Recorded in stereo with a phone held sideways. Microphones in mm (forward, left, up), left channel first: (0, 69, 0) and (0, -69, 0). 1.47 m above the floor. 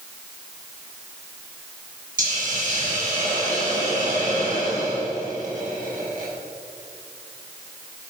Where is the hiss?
65° right (ahead or behind), 6 m.